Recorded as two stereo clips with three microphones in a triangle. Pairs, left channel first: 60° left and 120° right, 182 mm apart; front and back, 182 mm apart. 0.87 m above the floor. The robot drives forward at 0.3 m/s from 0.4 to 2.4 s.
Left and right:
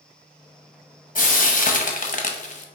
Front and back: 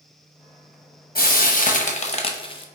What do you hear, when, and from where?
1.1 s frying: 25° left, 0.8 m; by 2.6 s 50° left, 0.5 m